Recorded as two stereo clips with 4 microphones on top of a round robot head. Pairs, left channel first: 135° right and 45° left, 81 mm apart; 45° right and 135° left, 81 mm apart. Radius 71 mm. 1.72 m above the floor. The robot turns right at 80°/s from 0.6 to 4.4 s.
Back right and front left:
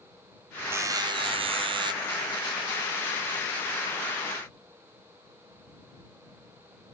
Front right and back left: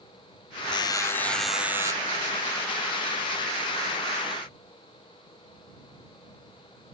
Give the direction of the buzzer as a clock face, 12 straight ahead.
1 o'clock.